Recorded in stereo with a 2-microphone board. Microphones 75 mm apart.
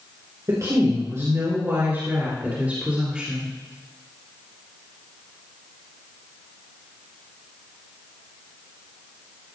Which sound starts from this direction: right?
A woman speaking, at 0.5 s.